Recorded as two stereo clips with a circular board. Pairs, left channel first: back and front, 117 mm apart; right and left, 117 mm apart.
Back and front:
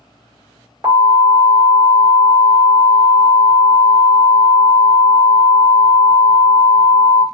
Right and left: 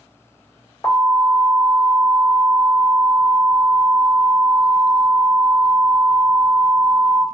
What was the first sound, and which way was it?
An alarm, 55° right.